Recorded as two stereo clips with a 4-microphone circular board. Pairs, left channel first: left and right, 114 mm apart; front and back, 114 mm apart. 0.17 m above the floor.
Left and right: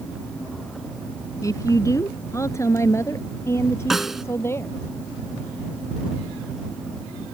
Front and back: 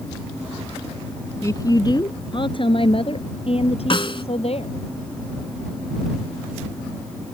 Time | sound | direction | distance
1.4 | a woman speaking | 50° left | ?
3.9 | a snare drum | 5° right | ?